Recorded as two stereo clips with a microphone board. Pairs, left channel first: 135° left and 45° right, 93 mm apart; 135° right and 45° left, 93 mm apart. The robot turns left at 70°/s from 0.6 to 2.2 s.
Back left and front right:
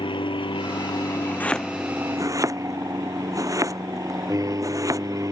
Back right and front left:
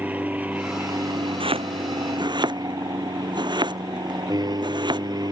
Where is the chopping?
65° left; by 5.3 s 10° left.